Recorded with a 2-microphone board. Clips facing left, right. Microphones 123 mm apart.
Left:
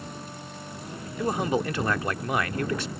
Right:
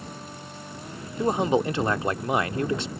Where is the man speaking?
25° right (ahead or behind).